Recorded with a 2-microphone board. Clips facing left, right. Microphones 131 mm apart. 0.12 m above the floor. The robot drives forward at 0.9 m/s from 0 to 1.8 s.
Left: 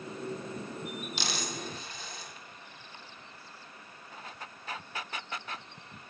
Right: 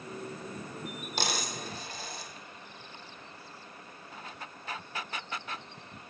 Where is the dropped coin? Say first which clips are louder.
Right 5 dB; 50° right (ahead or behind), 1.7 m; by 2.3 s 40° right (ahead or behind), 2 m.